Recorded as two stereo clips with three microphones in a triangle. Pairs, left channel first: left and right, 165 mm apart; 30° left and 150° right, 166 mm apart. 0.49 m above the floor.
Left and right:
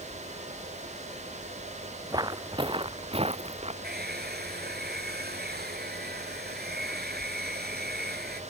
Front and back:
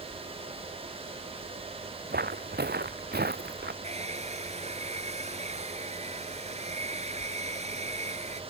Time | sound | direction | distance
2.1 | footsteps | 155° right | ?
3.8 | a hair dryer | 100° right | ?